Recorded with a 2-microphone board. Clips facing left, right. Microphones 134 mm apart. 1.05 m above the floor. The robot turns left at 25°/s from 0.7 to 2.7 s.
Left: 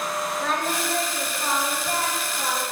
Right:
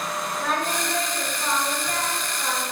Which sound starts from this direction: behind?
Singing, at 0.4 s.